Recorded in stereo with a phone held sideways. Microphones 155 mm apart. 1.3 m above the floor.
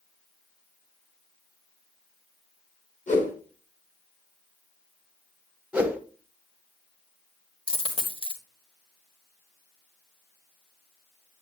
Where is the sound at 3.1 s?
50° left (ahead or behind), 2 m.